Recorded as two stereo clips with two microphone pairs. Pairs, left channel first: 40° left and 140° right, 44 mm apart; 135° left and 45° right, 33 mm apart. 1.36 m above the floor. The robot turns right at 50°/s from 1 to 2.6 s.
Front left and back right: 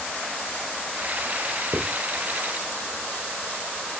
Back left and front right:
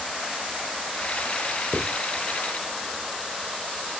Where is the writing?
170° right, 1.8 m; by 1.9 s 160° right, 1.8 m.